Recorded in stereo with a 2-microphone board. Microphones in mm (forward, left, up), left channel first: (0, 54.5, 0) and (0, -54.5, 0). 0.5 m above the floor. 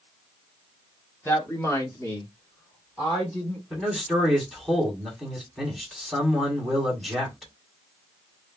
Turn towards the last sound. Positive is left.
turn(degrees=0)  # may be behind; listen again after turning